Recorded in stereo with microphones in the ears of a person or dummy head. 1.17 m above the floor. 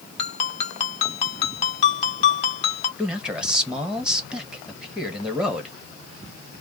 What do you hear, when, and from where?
0.2 s a ringtone: 30° left (ahead or behind), 1.6 m
3.0 s a man speaking: 10° right (ahead or behind), 1.4 m